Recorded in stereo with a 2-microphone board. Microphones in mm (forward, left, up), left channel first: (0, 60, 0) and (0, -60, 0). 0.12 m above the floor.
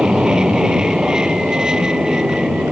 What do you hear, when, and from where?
0.0 s an aircraft: 5° right (ahead or behind)